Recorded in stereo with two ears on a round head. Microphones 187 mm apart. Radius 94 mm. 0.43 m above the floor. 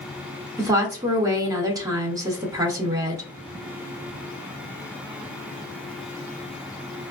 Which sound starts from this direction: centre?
A woman speaking, at 0.6 s.